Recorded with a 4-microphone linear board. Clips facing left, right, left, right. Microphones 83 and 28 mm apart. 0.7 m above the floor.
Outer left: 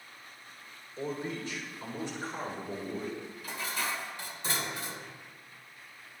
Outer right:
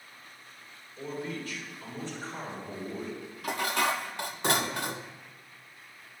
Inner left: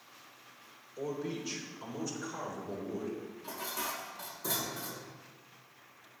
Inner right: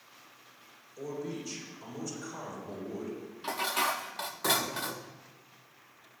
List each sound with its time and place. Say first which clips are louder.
1.0 s a man speaking: outer left 1 dB, inner left 1 dB; 30° left (ahead or behind), 3 m; by 3.2 s centre (ahead or behind), 3.5 m
3.4 s dishes clattering: outer right 8 dB, inner right 10 dB; 65° right (ahead or behind), 0.5 m